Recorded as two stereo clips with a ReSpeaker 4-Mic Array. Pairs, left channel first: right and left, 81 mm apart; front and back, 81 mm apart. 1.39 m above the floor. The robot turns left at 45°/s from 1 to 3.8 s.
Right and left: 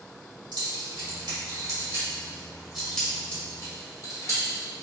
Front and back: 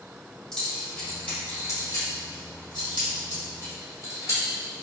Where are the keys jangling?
85° left, 1.8 m; by 4.8 s 40° right, 1.8 m.